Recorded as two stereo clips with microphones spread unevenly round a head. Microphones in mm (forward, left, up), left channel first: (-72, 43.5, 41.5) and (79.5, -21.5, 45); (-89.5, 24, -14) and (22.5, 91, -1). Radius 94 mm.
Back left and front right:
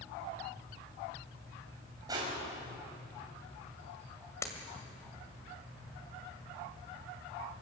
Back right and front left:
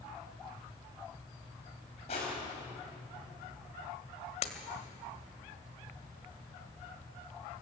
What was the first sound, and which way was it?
Crushing, 90° right.